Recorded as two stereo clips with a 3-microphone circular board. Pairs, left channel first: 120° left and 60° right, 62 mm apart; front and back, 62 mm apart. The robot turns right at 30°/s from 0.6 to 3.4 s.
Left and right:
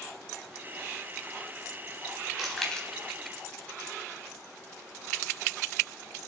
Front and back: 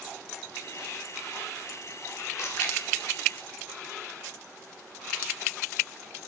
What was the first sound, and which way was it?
Chewing, 30° left.